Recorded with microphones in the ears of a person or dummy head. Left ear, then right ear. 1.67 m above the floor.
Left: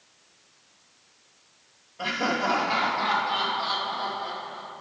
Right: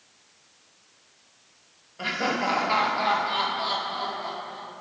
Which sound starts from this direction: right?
Laughter, at 2.0 s.